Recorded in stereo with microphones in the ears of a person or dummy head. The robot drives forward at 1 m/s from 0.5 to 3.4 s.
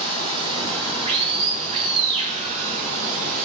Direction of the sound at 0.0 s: 30° right (ahead or behind).